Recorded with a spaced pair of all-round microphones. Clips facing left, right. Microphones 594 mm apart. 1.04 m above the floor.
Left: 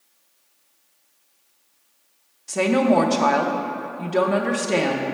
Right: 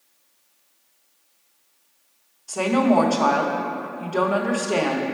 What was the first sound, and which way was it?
A woman speaking, 50° left (ahead or behind).